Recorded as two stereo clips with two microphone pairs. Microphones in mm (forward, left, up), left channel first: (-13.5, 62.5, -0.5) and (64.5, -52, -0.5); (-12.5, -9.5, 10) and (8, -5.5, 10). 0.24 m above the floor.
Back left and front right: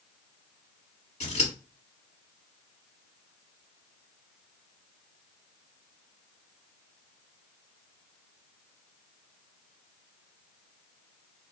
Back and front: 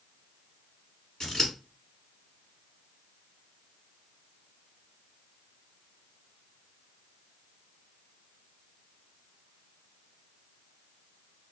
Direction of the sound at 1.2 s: 145° left.